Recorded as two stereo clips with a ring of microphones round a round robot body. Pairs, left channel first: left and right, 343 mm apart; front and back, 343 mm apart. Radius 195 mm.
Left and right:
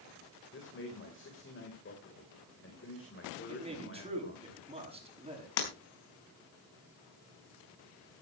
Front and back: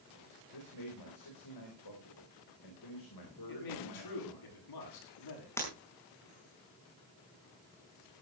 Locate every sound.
0.5 s a man speaking: 35° left, 3.5 m
3.5 s a man speaking: 15° right, 7 m
5.6 s breaking glass: 85° left, 4.5 m